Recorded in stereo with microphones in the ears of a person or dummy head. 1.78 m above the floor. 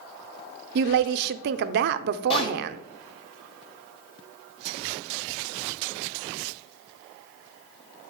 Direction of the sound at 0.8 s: 65° right (ahead or behind).